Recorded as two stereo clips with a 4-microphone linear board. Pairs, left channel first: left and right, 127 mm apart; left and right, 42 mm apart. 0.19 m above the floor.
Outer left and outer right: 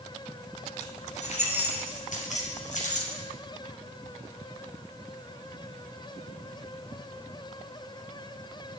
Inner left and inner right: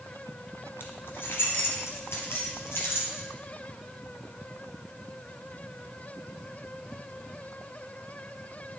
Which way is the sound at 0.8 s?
65° left (ahead or behind).